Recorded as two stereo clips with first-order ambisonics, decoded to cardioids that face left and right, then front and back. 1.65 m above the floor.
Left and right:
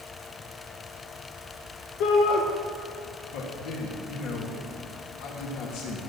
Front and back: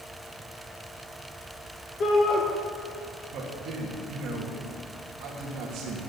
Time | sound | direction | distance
2.0 | a shout | 60° left | 1.2 m
3.3 | a man speaking | 130° left | 3 m